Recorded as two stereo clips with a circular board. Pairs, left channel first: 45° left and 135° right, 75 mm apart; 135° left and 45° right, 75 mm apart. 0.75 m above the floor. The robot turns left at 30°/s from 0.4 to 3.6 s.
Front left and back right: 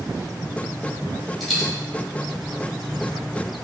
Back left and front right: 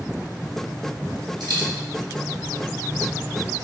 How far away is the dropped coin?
About 1.4 m.